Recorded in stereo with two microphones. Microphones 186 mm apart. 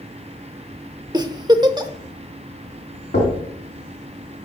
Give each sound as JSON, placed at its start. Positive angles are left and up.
{"t": 1.1, "sound": "a giggle", "side_deg": -25, "distance_m": 0.7}
{"t": 3.1, "sound": "knocking", "side_deg": 80, "distance_m": 2.5}